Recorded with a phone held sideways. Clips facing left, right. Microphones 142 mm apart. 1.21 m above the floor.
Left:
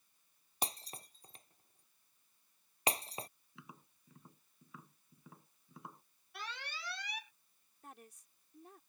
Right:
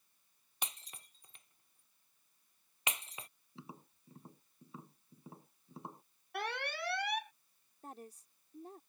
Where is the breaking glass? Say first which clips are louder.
Left 6 dB; 35° left (ahead or behind).